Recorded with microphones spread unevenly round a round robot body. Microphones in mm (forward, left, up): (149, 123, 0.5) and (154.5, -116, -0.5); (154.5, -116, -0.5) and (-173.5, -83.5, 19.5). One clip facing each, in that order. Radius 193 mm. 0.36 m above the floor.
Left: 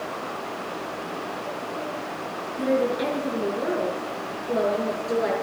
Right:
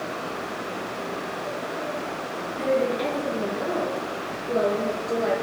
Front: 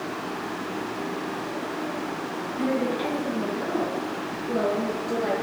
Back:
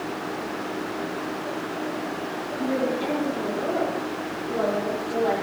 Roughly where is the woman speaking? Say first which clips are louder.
Left 1 dB, even; ahead.